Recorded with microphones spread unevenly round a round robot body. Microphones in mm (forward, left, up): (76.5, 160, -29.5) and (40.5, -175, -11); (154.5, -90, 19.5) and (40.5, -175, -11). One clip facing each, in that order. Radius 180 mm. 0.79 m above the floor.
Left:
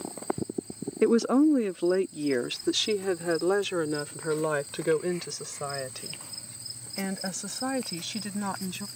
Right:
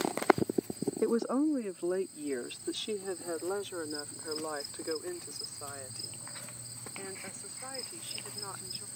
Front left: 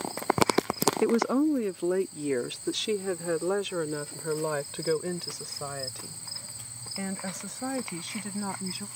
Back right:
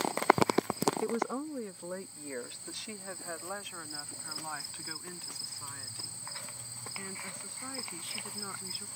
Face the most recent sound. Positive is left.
turn(degrees=80)